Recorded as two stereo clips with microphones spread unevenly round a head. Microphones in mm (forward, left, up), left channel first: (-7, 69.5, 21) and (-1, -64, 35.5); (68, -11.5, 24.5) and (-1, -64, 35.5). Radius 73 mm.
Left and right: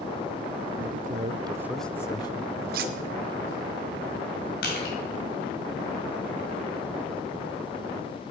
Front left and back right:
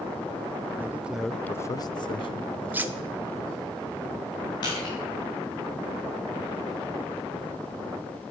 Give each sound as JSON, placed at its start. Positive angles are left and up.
{"t": 0.8, "sound": "a man speaking", "azimuth_deg": -75, "distance_m": 0.9}
{"t": 2.7, "sound": "cutlery clinking", "azimuth_deg": -80, "distance_m": 0.8}
{"t": 4.6, "sound": "crushing", "azimuth_deg": 85, "distance_m": 5.0}